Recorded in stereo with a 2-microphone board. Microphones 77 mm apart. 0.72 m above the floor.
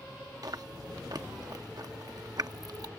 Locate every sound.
0.4 s chewing: 55° right (ahead or behind)